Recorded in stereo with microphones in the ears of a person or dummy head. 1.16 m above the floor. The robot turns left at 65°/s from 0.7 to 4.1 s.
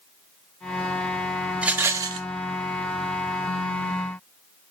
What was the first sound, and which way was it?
A rattle, 5° right.